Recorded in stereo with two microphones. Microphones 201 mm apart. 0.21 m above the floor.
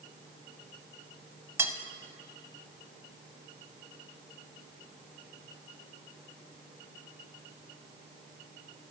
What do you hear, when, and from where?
1.6 s cutlery clinking: 15° right (ahead or behind), 0.6 m